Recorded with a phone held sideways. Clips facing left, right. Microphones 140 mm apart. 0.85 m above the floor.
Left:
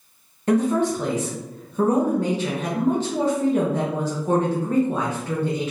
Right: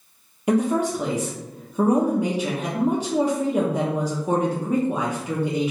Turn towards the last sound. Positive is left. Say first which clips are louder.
# left 1 dB
turn(degrees=-10)  # may be behind; listen again after turning